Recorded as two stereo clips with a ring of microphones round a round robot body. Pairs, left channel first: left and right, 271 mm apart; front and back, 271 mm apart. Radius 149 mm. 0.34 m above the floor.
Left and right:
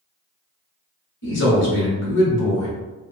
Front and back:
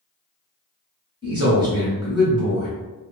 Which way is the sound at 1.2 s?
115° left.